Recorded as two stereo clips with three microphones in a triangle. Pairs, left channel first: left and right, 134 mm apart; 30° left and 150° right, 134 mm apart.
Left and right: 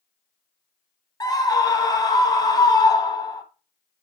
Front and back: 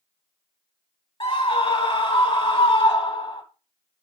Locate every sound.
1.2 s a scream: 50° left, 1.5 m